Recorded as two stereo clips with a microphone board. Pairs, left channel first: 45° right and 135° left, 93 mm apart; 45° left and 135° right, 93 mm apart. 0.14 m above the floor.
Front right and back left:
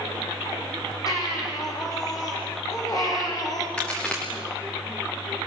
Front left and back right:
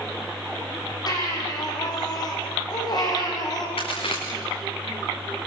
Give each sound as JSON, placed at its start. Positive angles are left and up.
{"t": 1.1, "sound": "a baby crying", "azimuth_deg": 0, "distance_m": 6.0}
{"t": 3.8, "sound": "a crack", "azimuth_deg": 35, "distance_m": 5.5}